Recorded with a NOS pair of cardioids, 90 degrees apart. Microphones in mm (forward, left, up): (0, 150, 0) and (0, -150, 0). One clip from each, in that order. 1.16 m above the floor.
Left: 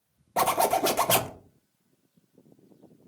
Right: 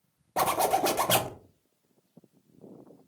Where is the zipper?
5° left, 0.5 m.